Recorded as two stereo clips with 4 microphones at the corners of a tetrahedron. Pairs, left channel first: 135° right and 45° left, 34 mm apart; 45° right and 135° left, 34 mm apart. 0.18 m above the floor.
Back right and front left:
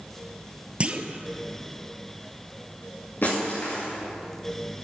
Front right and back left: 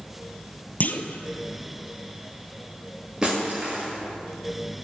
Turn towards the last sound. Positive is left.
turn(degrees=-155)